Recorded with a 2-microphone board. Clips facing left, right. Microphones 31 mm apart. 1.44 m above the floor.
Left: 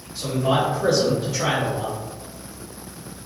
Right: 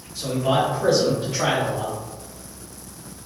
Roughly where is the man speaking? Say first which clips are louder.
Even; centre.